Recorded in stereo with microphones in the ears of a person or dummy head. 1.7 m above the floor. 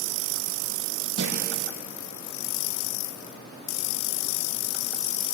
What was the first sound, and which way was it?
A thud, 60° right (ahead or behind).